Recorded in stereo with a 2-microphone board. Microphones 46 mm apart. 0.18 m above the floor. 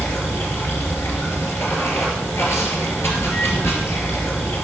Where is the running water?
70° left (ahead or behind), 2.5 m.